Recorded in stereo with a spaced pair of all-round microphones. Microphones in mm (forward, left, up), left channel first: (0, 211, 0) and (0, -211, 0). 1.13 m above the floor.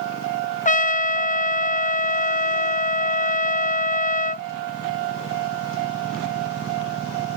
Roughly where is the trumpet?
Centre.